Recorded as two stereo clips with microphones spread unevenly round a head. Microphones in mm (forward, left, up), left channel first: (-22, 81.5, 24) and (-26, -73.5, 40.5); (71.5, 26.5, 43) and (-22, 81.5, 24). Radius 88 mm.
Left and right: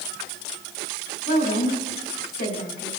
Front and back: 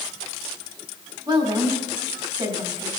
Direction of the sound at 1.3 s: 110° left.